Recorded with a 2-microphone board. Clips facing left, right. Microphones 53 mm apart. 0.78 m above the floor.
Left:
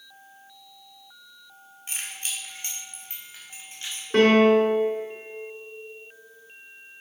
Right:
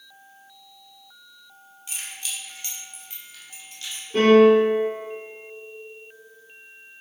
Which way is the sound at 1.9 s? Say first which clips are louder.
Left 1 dB; 40° left (ahead or behind).